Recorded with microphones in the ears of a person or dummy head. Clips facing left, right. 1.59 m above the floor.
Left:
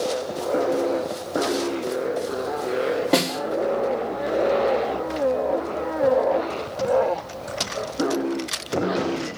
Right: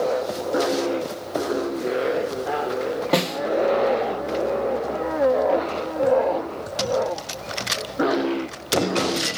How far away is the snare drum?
About 1.2 m.